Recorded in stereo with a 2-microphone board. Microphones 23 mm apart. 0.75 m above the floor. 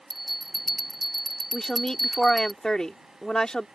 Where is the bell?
10° right (ahead or behind).